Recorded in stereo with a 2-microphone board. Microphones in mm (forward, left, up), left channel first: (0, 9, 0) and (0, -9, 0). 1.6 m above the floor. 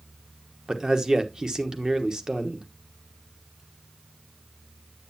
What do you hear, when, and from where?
0.7 s a man speaking: 40° right (ahead or behind), 1.2 m